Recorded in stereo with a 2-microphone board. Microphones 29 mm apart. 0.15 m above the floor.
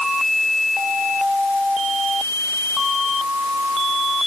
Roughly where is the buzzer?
I don't hear a buzzer.